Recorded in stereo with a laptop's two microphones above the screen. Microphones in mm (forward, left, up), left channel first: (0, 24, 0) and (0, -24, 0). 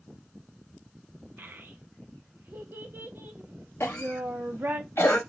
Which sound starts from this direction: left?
A cough, at 3.8 s.